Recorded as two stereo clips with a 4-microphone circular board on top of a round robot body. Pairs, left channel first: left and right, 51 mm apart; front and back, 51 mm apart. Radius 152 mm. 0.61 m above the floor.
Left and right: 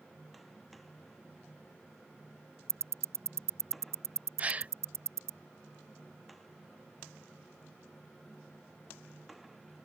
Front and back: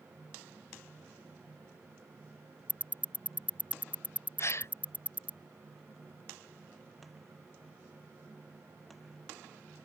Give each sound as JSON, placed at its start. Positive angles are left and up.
{"t": 2.7, "sound": "ticking", "azimuth_deg": -60}
{"t": 4.4, "sound": "a gasp", "azimuth_deg": -30}